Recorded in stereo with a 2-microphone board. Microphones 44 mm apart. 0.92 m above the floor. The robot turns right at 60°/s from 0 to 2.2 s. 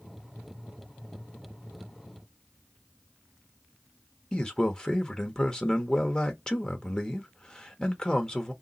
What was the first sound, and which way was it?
A man speaking, 15° left (ahead or behind).